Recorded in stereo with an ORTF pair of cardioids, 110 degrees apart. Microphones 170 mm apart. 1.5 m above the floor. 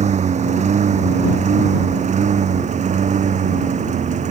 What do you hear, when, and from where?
0.0 s a lawn mower: 45° right